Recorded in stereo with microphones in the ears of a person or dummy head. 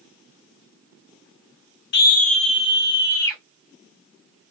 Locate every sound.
1.9 s a scream: 55° left (ahead or behind), 0.6 m; by 3.4 s 15° left (ahead or behind), 1.8 m